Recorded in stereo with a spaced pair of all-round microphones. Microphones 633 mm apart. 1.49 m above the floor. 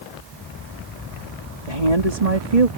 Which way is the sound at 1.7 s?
70° right (ahead or behind).